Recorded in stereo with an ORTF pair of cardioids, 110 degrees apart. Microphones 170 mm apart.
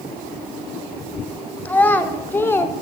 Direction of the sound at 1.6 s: 10° left.